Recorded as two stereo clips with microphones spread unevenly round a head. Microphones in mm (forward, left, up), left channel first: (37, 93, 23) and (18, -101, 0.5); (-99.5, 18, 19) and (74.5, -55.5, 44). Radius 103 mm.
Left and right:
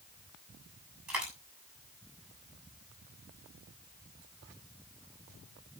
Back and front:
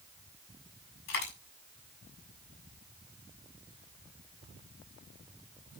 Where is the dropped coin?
Straight behind, 7 m.